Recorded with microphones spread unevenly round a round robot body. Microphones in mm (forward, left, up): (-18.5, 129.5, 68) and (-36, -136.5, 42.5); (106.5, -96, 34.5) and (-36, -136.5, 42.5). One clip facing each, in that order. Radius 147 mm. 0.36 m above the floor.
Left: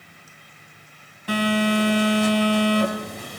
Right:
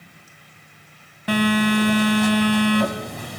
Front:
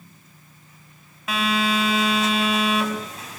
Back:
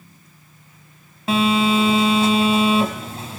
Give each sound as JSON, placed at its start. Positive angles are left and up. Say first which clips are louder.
{"t": 1.3, "sound": "a phone buzzing", "louder": "right 2 dB, back 6 dB", "azimuth_deg": -105, "distance_m": 3.0}